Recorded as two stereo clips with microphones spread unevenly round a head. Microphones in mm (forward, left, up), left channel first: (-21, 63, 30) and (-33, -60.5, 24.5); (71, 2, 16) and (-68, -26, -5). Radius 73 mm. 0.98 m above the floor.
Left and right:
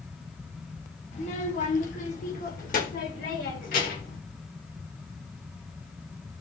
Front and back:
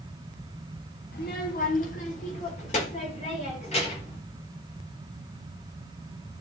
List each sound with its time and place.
1.1 s a child speaking: 45° left, 2.5 m; by 4.2 s 65° left, 4.5 m